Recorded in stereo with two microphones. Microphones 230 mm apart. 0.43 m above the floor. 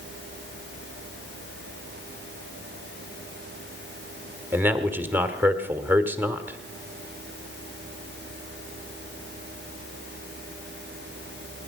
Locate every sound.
4.5 s a man speaking: 10° right (ahead or behind), 1.4 m